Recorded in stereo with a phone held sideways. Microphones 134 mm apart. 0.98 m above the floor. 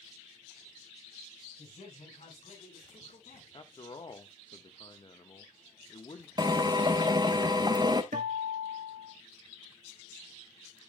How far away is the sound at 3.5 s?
About 1.3 m.